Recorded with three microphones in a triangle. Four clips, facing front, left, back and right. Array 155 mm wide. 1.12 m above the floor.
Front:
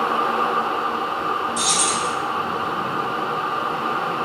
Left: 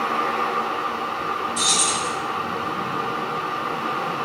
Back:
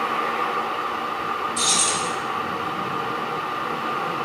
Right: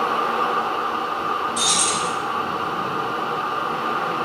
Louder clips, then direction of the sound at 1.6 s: Right 1 dB, front 2 dB; 120° right.